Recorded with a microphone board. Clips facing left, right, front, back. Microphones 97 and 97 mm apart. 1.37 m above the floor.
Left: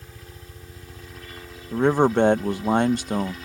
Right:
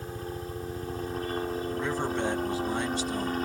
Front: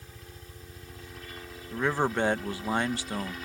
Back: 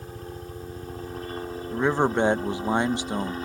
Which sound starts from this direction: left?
A man speaking, at 1.7 s.